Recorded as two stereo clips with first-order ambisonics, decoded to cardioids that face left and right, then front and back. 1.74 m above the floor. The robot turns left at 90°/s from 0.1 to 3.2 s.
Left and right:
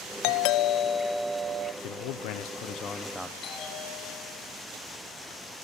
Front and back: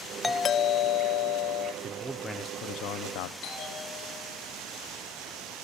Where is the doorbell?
85° left, 0.9 m; by 1.7 s 50° right, 0.9 m.